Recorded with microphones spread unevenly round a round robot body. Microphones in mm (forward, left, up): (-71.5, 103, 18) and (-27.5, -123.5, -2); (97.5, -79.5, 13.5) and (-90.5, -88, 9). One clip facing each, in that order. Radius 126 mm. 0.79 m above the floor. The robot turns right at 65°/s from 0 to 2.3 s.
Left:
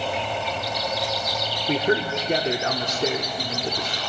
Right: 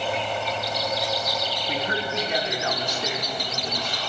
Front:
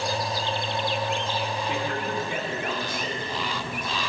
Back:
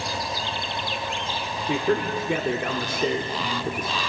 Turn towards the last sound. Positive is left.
turn(degrees=155)